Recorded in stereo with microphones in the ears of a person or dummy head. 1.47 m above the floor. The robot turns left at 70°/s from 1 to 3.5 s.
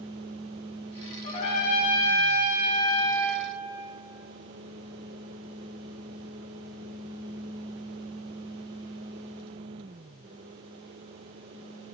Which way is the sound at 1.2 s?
160° left.